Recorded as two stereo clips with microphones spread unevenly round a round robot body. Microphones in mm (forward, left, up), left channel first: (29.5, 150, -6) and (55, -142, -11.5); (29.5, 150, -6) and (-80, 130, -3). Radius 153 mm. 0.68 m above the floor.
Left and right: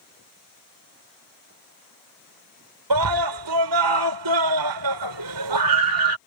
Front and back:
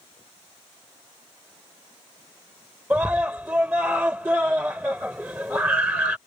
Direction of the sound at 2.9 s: 85° right.